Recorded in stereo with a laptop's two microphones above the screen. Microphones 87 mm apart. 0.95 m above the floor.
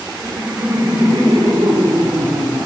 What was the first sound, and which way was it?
Laughter, 35° right (ahead or behind).